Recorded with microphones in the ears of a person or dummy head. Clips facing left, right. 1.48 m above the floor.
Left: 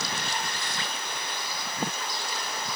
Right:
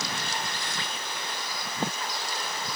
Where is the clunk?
I don't hear a clunk.